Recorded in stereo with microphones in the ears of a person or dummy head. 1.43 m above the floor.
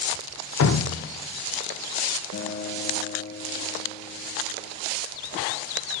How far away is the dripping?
About 0.6 m.